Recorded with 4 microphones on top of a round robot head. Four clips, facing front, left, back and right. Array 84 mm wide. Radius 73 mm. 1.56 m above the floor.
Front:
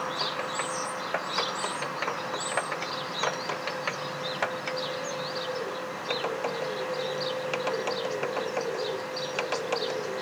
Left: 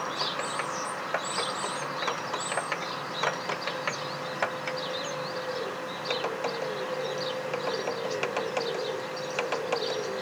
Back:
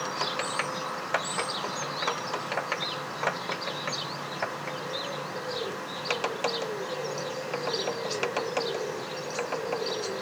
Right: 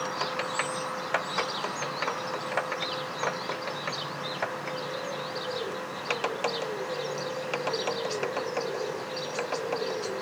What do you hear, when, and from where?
Only background noise.